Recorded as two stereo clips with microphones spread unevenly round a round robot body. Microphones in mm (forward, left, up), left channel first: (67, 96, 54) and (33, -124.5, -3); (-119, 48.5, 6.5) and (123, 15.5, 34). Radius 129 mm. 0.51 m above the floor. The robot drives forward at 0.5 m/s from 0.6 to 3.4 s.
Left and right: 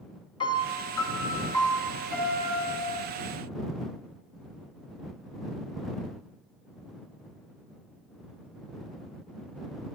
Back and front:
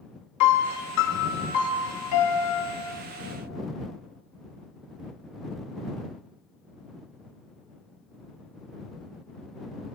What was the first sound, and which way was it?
A piano, 155° left.